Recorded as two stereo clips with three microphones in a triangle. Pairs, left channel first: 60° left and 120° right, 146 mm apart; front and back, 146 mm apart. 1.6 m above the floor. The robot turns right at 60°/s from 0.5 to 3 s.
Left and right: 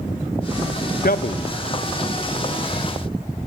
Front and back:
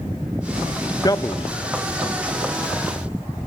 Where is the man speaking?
60° left, 1.1 m; by 1.6 s 95° left, 1.1 m.